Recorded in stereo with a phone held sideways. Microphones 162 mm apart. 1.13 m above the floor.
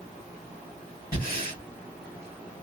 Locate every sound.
1.1 s breathing: 65° left (ahead or behind), 1.5 m